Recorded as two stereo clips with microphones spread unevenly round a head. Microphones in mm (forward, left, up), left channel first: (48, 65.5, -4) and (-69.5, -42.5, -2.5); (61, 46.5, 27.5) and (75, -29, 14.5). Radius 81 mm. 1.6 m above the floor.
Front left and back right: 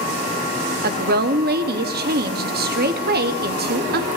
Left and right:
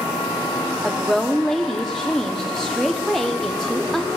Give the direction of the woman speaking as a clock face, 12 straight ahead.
6 o'clock.